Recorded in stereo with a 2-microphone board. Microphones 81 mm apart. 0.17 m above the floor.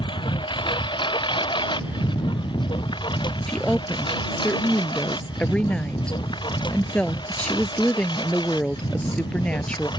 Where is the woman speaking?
15° left (ahead or behind).